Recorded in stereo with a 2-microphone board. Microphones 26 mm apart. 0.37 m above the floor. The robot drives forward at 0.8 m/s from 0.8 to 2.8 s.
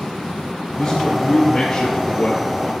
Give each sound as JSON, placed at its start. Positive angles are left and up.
{"t": 0.8, "sound": "a man speaking", "side_deg": 15, "distance_m": 6.0}